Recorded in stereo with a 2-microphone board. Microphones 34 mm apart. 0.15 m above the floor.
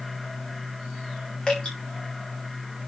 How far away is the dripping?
About 5.5 m.